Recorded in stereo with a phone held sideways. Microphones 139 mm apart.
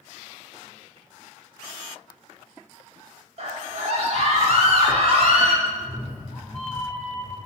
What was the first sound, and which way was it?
A scream, 50° right (ahead or behind).